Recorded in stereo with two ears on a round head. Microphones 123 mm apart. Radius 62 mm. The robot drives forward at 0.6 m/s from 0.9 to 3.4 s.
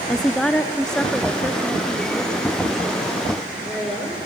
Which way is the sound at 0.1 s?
5° left (ahead or behind).